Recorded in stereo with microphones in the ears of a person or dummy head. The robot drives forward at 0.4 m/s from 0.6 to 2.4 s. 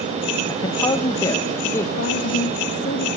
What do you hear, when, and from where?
0.5 s a man speaking: 30° left (ahead or behind), 1.1 m; by 1.9 s 20° left (ahead or behind), 1.5 m
2.0 s a woman speaking: 70° left (ahead or behind), 1.9 m